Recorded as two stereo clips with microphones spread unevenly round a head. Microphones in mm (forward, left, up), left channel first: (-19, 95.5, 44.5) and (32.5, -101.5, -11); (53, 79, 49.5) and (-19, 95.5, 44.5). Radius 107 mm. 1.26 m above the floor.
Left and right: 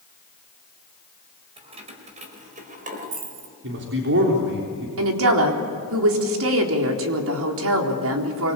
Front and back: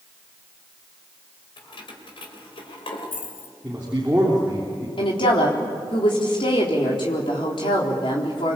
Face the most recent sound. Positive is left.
turn(degrees=-55)